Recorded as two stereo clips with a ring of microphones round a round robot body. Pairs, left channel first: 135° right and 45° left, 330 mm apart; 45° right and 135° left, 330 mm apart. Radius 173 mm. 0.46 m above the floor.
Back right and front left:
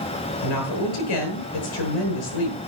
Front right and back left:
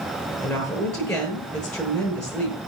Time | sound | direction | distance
0.4 | a woman speaking | 135° right | 8.5 m